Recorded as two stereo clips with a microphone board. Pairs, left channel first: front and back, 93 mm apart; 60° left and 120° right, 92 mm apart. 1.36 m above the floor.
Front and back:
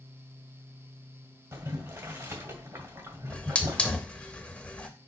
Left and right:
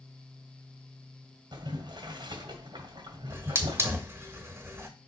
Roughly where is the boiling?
Behind right.